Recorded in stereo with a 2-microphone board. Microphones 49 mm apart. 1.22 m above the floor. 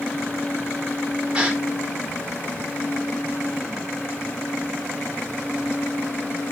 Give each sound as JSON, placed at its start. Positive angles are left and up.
{"t": 1.3, "sound": "a gasp", "side_deg": -20, "distance_m": 3.0}